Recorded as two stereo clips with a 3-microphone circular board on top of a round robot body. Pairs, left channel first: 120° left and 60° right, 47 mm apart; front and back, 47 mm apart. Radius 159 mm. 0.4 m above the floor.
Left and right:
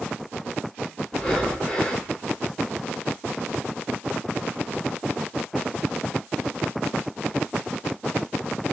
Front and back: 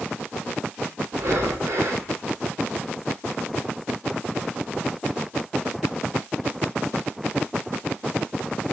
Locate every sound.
1.1 s breathing: 160° right, 2 m